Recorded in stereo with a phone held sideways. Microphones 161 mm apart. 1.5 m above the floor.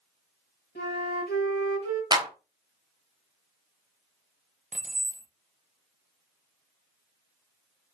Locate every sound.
0.8 s a flute: 80° left, 1.6 m
2.1 s a clap: 25° right (ahead or behind), 0.7 m
4.7 s keys jangling: 45° right (ahead or behind), 0.7 m